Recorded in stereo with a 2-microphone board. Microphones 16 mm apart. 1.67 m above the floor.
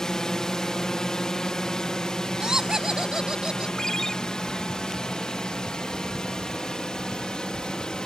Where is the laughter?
50° right (ahead or behind).